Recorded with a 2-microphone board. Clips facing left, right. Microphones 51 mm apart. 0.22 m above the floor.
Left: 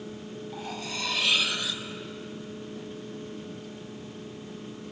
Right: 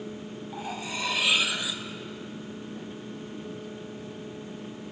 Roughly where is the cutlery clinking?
Centre.